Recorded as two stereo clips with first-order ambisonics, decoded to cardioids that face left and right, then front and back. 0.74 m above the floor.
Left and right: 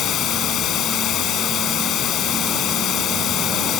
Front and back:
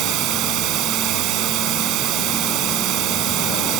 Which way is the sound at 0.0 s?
140° left.